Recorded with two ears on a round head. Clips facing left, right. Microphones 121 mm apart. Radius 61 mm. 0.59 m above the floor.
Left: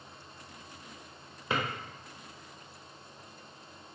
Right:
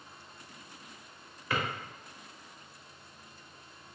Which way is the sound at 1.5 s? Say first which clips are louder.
Left 1 dB; 20° left (ahead or behind).